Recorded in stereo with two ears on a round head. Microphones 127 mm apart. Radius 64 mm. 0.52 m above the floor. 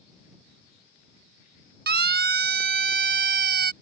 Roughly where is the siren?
Right.